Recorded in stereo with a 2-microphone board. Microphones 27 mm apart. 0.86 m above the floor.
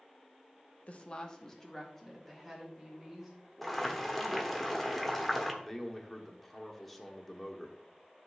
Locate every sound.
0.9 s a woman speaking: 55° left (ahead or behind), 0.8 m; by 4.6 s 5° right (ahead or behind), 5 m
3.6 s boiling: 5° left (ahead or behind), 1.2 m
5.6 s a man speaking: 5° left (ahead or behind), 1.2 m